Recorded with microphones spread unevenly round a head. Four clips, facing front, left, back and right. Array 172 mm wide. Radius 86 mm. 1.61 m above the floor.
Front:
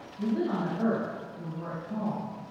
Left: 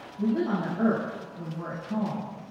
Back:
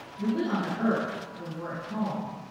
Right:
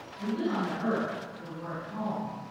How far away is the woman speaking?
About 10 m.